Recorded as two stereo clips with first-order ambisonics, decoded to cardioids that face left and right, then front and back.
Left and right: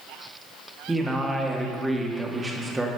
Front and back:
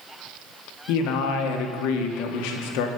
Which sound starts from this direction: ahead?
A man speaking, at 0.9 s.